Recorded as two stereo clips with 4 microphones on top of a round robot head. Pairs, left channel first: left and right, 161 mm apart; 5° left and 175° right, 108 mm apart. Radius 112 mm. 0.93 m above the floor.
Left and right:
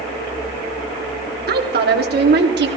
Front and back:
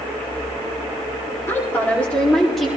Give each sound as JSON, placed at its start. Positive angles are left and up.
{"t": 1.5, "sound": "a woman speaking", "azimuth_deg": -70, "distance_m": 2.5}